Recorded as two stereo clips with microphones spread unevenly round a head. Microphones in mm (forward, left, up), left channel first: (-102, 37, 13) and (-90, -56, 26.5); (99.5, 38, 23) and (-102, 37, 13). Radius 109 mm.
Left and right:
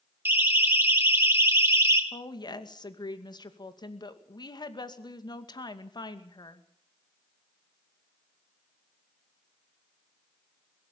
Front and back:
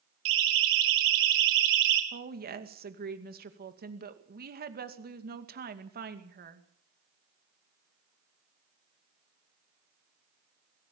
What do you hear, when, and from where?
0.2 s a siren: 150° right, 4 m; by 2.0 s 145° right, 3 m
2.1 s a woman speaking: 140° left, 2.5 m